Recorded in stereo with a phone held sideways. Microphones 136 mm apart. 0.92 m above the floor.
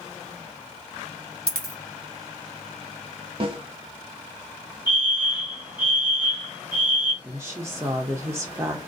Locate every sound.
1.5 s a dropped coin: 30° left (ahead or behind), 1.7 m
3.4 s a snare drum: 40° right (ahead or behind), 0.7 m
4.9 s a fire alarm: 35° left (ahead or behind), 1.7 m
7.2 s a woman speaking: 20° right (ahead or behind), 0.6 m